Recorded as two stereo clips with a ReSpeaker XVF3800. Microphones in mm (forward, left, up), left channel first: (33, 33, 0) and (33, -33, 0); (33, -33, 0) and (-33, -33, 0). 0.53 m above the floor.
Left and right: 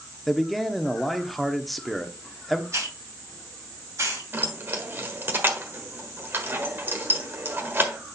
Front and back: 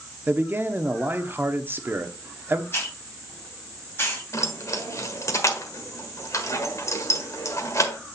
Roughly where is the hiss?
Ahead right.